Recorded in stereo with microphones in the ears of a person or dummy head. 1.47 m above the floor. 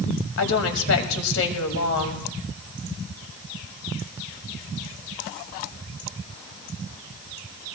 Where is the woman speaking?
85° left, 2 m.